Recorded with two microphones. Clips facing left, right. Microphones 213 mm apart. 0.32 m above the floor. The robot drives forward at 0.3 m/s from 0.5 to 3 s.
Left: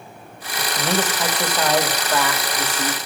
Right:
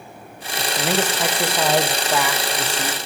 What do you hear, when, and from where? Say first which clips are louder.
0.6 s a man speaking: right 1 dB; 10° right (ahead or behind), 0.9 m